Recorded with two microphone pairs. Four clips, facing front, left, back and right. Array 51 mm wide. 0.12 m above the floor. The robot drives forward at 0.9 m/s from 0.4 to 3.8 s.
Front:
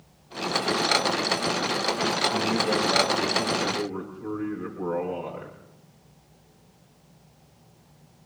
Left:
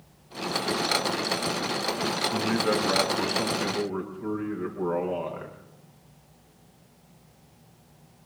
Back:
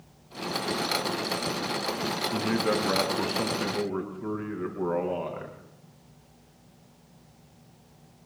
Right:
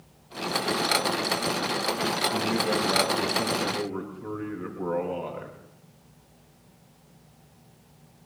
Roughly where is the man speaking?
Behind left.